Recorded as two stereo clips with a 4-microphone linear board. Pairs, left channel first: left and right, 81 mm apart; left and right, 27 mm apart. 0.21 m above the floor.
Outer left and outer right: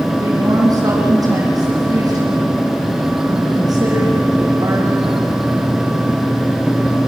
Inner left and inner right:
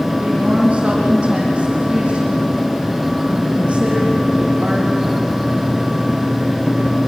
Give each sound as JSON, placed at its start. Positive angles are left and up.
{"t": 0.2, "sound": "a woman speaking", "side_deg": -45, "distance_m": 10.0}